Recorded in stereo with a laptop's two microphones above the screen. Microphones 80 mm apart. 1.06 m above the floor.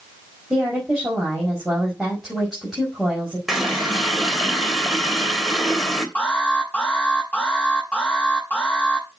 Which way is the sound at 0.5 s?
Centre (ahead or behind).